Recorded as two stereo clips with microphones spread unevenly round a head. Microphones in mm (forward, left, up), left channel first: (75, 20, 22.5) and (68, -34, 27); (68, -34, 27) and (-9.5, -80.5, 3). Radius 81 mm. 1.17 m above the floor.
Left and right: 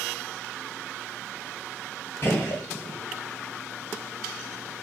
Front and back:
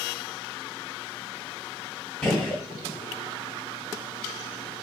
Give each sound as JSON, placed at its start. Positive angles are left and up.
{"t": 2.2, "sound": "a gunshot", "azimuth_deg": 80, "distance_m": 1.0}